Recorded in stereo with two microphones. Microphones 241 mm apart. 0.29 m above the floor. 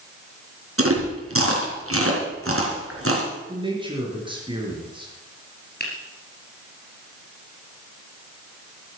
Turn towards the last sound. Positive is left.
turn(degrees=40)  # may be behind; listen again after turning